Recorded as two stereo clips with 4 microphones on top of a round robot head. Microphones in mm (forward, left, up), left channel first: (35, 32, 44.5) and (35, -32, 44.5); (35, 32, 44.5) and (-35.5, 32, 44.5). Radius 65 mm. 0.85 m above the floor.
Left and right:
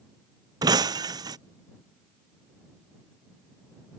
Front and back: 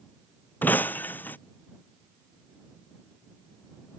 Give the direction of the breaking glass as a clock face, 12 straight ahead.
2 o'clock.